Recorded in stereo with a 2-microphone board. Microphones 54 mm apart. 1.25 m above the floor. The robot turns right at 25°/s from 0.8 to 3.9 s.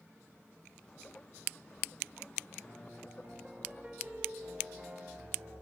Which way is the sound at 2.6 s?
55° right.